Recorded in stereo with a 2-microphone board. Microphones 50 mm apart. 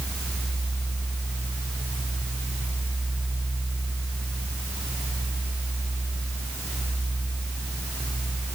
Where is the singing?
No singing in this recording.